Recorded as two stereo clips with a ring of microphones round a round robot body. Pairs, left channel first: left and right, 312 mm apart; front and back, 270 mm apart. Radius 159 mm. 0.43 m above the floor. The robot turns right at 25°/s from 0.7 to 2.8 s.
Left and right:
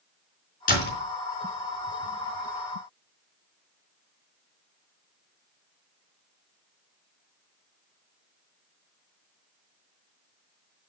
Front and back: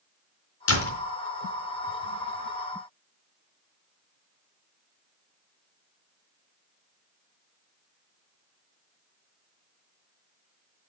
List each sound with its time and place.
0.7 s a door slam: 25° left, 4 m; by 1.0 s 35° left, 4 m